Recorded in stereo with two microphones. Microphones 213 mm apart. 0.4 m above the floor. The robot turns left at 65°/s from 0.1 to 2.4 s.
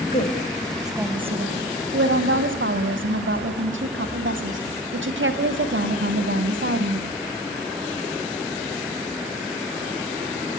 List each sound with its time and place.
0.1 s a woman speaking: 45° left, 2.5 m; by 7.0 s 105° right, 2.5 m